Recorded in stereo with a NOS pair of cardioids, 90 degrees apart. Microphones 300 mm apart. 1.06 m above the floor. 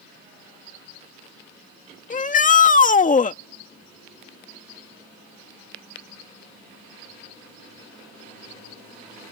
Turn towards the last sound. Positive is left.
turn(degrees=25)